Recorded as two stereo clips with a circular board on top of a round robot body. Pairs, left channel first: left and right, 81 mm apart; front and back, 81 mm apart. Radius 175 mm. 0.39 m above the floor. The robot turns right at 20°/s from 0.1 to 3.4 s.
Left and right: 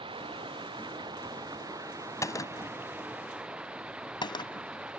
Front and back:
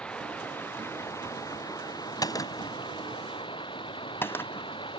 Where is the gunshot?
40° left; by 4.7 s 60° left.